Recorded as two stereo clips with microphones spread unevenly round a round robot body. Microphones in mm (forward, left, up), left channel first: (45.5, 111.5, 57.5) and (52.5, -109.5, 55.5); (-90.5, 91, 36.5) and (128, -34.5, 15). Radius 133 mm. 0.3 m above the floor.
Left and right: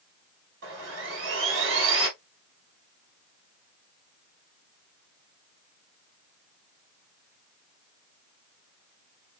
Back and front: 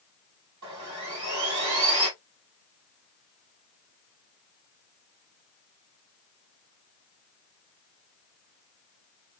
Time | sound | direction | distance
0.6 | sawing | 55° right | 3 m